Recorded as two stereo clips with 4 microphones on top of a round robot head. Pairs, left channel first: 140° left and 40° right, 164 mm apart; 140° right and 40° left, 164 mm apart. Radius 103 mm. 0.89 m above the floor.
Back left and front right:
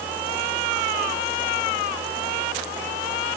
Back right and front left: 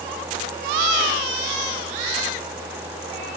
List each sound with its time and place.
Only background noise.